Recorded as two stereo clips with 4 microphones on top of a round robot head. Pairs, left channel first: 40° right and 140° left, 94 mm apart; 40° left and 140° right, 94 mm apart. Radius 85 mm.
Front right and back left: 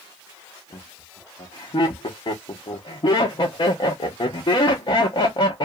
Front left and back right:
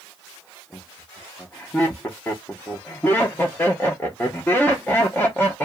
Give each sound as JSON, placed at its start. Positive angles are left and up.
{"t": 0.7, "sound": "laughter", "azimuth_deg": -25, "distance_m": 0.7}